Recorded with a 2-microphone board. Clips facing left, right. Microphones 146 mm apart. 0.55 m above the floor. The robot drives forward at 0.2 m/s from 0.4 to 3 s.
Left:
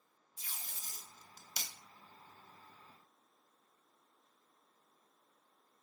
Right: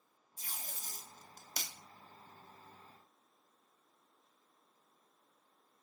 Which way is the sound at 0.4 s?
45° right (ahead or behind).